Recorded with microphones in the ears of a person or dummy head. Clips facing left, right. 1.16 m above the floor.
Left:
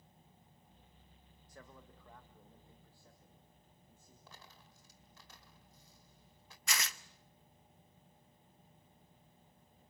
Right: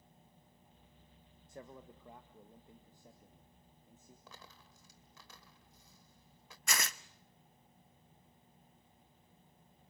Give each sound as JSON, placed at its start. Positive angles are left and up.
{"t": 1.5, "sound": "a man speaking", "side_deg": -15, "distance_m": 1.0}
{"t": 4.3, "sound": "a dropped coin", "side_deg": -75, "distance_m": 1.9}
{"t": 6.7, "sound": "tearing paper", "side_deg": -40, "distance_m": 0.6}